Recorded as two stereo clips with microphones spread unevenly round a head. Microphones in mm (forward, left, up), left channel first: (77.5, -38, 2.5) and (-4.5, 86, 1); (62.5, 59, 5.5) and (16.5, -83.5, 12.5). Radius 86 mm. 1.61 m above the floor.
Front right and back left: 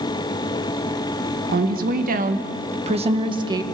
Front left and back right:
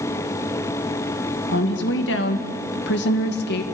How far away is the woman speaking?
About 2.0 m.